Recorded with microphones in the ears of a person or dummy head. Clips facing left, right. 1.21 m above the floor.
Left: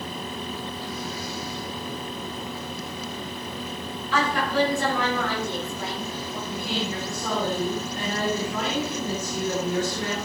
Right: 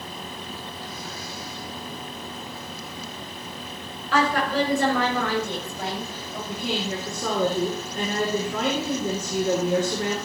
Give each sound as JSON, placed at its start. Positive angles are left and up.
{"t": 4.1, "sound": "a woman speaking", "side_deg": -55, "distance_m": 5.5}
{"t": 6.5, "sound": "a woman speaking", "side_deg": -60, "distance_m": 4.0}